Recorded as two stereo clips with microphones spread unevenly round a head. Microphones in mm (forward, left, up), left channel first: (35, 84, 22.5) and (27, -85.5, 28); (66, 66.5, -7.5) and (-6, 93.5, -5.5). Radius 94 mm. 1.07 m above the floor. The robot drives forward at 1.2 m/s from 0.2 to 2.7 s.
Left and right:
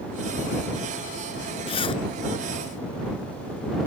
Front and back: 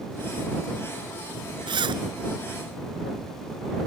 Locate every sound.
1.7 s a zipper: 150° left; by 2.0 s 155° left